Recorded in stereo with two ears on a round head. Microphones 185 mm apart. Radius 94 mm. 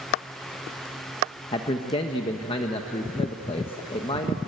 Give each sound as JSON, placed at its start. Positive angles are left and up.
{"t": 1.5, "sound": "a man speaking", "side_deg": 25, "distance_m": 1.1}